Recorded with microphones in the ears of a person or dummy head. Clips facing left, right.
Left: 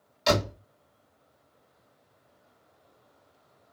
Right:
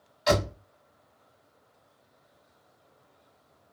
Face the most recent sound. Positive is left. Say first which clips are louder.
# right 1 dB
turn(degrees=35)  # may be behind; listen again after turning